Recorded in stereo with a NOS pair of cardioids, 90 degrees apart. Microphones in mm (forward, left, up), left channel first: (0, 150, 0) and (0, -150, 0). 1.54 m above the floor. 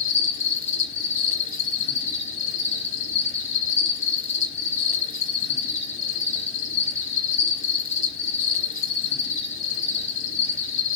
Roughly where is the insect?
Ahead left.